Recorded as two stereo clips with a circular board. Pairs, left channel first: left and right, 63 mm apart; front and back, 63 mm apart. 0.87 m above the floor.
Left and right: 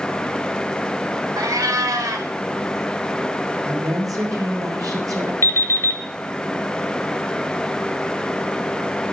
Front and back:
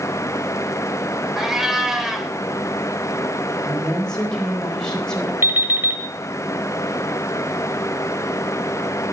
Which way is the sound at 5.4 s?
130° left.